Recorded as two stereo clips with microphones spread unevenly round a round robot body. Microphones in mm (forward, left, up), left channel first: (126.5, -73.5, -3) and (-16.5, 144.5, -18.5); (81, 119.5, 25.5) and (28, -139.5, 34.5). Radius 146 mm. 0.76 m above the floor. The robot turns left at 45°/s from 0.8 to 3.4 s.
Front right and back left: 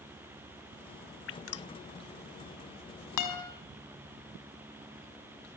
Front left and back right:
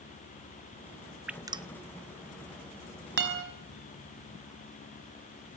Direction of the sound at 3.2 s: 50° right.